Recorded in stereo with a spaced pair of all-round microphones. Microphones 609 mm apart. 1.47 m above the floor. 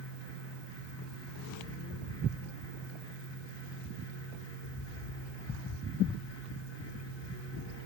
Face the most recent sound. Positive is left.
turn(degrees=40)  # may be behind; listen again after turning